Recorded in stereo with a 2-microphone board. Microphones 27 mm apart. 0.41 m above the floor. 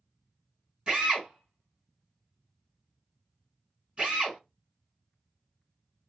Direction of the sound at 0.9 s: 40° right (ahead or behind).